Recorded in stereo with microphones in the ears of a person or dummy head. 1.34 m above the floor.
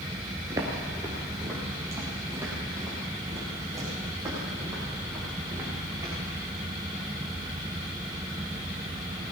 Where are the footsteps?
20° right (ahead or behind), 1.6 m; by 6.1 s 15° right (ahead or behind), 7 m.